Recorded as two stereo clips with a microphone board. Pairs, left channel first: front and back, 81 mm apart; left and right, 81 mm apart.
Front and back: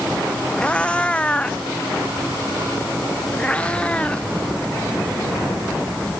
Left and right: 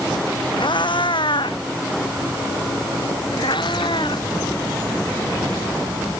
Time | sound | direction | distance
0.6 | a cat meowing | 80° left | ?